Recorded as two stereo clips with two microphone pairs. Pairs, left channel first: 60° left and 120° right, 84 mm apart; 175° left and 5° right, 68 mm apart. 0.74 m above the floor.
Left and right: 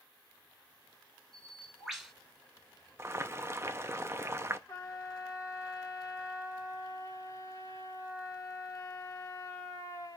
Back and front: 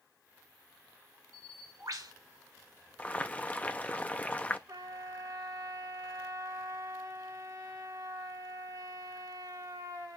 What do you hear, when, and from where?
1.3 s a bird: 35° right, 3 m
3.0 s boiling: 130° right, 0.7 m
4.7 s a trumpet: 15° left, 2.5 m